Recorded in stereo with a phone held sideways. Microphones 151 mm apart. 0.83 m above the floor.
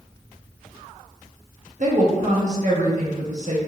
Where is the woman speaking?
55° right (ahead or behind), 1.4 m.